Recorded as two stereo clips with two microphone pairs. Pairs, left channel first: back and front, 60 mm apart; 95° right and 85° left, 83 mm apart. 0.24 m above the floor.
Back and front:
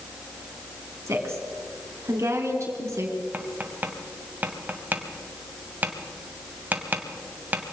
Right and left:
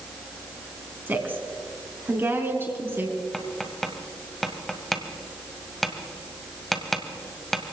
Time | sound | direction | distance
1.1 | a woman speaking | 25° left | 3 m
3.3 | tapping | 15° right | 1.7 m